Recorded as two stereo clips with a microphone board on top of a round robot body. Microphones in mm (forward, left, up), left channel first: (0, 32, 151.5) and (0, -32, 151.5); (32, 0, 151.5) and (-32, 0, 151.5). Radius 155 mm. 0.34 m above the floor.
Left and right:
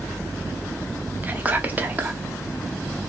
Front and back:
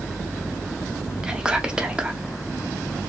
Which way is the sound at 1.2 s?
120° right.